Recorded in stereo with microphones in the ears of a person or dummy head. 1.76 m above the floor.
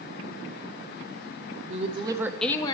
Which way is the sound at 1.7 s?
40° right (ahead or behind).